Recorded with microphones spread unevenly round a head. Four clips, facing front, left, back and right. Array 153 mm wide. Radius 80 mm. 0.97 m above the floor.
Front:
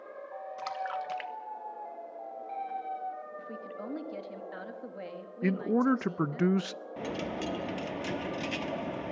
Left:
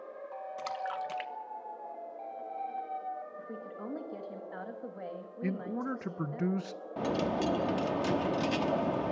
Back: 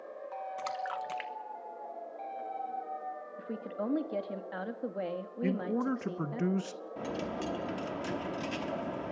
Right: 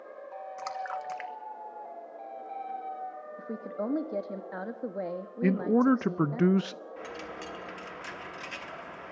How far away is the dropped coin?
About 0.6 m.